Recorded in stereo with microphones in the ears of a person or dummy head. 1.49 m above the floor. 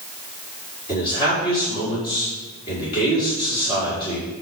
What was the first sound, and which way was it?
A man speaking, 30° left (ahead or behind).